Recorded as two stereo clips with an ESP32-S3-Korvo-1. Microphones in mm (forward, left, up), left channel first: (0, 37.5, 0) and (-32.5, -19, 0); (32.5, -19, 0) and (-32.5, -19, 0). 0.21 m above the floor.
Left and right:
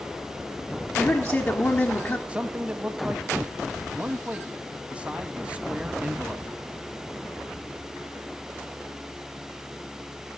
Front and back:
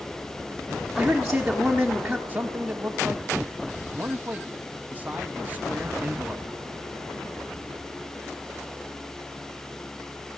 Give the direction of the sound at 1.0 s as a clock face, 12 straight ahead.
9 o'clock.